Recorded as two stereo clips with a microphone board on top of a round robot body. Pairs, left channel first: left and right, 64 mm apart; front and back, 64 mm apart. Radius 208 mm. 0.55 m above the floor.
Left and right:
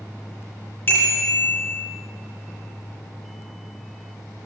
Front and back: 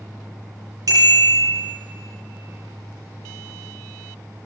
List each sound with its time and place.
0.9 s a bicycle bell: 145° left, 6.5 m